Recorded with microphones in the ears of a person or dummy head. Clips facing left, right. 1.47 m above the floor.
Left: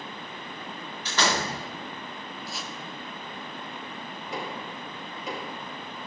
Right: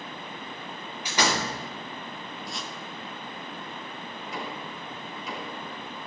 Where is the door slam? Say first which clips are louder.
Even; 10° right (ahead or behind), 2.5 m.